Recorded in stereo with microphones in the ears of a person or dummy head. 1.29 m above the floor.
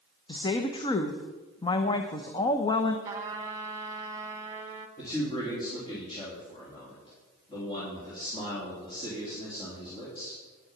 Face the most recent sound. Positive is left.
turn(degrees=25)  # may be behind; listen again after turning